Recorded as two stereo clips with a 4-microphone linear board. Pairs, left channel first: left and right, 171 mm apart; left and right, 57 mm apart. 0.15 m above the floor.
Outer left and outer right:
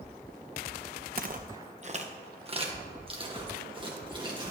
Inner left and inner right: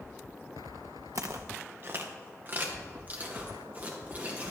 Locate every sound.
1.1 s footsteps: 60° right (ahead or behind), 0.7 m; by 4.5 s 25° right (ahead or behind), 3 m